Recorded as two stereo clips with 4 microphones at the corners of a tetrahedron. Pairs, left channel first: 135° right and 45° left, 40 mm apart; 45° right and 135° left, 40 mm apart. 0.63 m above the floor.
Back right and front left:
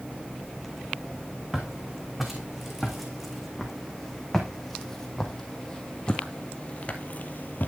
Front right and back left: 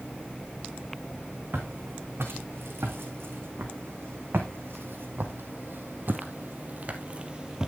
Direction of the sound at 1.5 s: 130° left.